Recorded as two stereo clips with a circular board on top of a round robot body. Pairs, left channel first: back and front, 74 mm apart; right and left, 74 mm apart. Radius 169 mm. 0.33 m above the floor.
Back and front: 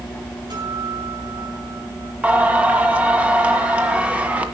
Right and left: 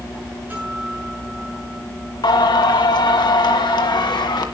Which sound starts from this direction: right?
Singing, at 2.2 s.